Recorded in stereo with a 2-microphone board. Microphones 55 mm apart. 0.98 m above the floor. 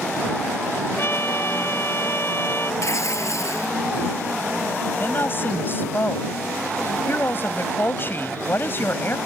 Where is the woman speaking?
40° left (ahead or behind).